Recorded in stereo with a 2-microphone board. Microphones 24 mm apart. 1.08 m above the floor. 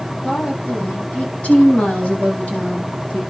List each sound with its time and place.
0.2 s a woman speaking: 85° left, 8.5 m; by 3.2 s 75° left (ahead or behind), 7.5 m